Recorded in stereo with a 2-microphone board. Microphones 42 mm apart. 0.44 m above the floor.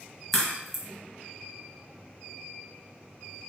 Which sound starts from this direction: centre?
A crack, at 0.3 s.